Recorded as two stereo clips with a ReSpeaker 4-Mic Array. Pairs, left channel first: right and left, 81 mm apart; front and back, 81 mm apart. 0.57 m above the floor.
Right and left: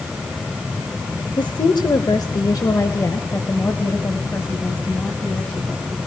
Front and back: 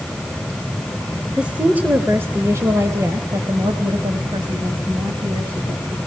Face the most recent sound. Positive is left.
turn(degrees=-165)